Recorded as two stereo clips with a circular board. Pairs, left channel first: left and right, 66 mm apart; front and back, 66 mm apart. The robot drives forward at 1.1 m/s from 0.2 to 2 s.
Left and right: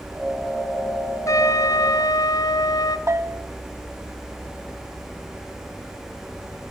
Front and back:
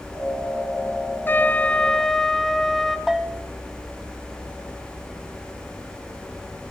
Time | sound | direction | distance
1.3 | a trumpet | 60° left | 1.9 m
3.1 | a bell | 95° right | 1.6 m